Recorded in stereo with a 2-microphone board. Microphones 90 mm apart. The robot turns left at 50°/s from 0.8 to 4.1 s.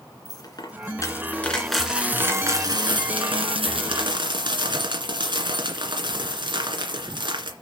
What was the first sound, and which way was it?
A dropped coin, 50° left.